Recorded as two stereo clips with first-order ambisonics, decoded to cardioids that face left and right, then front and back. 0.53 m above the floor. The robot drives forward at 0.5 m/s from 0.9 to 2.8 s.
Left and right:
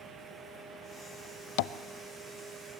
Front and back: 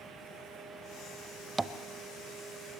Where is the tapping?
100° left, 0.6 m; by 1.7 s 105° left, 0.7 m.